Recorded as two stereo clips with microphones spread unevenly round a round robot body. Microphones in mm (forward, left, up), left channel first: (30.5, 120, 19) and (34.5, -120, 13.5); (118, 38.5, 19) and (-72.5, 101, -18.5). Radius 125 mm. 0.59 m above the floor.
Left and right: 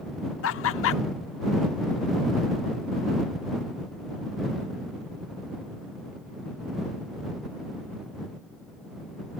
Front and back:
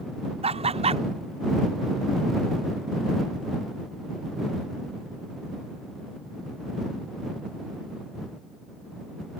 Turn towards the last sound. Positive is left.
turn(degrees=115)